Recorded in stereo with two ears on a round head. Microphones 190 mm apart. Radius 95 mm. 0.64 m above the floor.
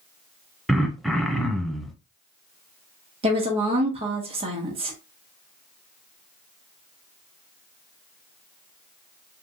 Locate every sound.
0.7 s throat clearing: centre (ahead or behind), 0.6 m
3.2 s a woman speaking: 25° right (ahead or behind), 1.4 m